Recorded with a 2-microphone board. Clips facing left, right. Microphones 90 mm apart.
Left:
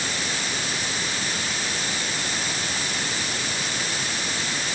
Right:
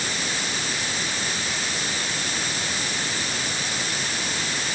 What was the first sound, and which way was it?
Only background noise.